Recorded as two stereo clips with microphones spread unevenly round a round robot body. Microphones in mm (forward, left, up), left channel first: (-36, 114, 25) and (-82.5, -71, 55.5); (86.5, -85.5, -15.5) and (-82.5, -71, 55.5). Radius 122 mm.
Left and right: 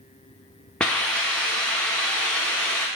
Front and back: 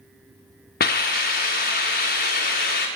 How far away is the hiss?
About 1.5 m.